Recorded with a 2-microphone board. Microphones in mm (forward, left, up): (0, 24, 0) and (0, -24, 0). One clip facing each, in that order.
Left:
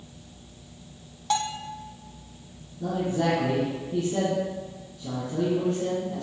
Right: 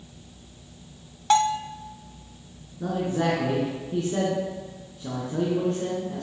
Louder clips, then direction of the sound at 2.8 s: Even; 50° right (ahead or behind).